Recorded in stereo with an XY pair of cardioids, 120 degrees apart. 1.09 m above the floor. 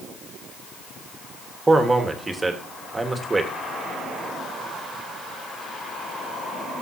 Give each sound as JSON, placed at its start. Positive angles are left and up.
{"t": 1.7, "sound": "a man speaking", "azimuth_deg": -15, "distance_m": 1.6}